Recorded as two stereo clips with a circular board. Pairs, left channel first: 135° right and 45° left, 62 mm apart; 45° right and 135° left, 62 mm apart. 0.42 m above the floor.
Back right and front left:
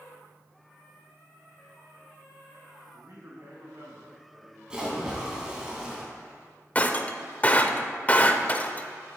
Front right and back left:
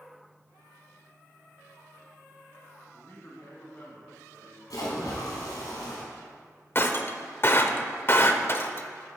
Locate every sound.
2.9 s a man speaking: 10° left, 3.5 m
4.7 s a splash: 30° right, 2 m
6.8 s breaking glass: 80° right, 0.6 m